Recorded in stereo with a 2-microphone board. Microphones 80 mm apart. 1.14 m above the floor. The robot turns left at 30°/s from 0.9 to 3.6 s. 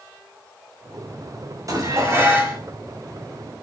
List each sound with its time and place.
1.7 s dishes clattering: 45° right (ahead or behind), 5 m; by 2.6 s 20° right (ahead or behind), 5 m